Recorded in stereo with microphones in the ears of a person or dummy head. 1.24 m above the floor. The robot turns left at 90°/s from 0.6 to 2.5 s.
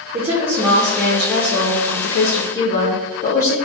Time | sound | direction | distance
0.1 | a woman speaking | 145° right | 0.6 m